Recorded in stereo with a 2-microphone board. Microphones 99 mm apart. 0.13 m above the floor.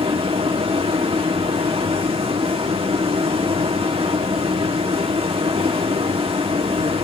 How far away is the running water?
About 1.8 m.